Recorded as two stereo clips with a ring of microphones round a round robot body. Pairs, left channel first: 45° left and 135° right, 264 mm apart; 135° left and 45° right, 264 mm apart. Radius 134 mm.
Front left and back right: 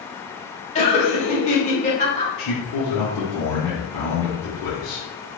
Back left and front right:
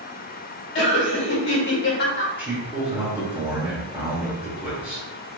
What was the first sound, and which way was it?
Laughter, 105° left.